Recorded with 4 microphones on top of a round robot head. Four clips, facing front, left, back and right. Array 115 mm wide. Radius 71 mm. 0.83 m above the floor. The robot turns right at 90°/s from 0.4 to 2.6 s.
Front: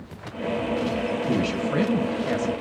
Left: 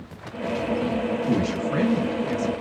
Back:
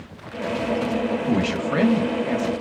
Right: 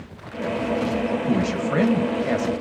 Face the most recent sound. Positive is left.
turn(degrees=-65)